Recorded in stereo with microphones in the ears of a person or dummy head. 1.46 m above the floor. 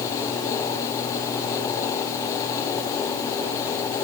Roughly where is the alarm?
No alarm in this recording.